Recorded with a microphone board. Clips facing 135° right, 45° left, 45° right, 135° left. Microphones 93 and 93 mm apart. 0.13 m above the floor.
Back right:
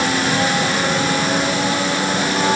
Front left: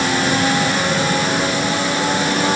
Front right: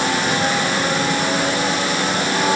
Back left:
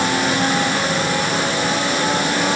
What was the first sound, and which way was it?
Only background noise.